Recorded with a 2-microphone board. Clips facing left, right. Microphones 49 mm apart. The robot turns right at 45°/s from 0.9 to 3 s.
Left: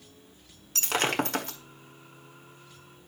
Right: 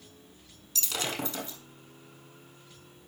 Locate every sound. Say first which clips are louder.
0.8 s breaking glass: left 7 dB; 55° left, 1.5 m; by 1.6 s 85° left, 1.5 m